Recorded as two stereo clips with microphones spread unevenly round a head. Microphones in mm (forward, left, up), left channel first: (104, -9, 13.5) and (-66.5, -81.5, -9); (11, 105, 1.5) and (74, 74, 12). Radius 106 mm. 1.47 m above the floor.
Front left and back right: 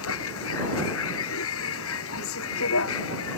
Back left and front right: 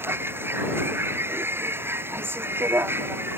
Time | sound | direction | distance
0.0 | a vehicle | 30° left | ?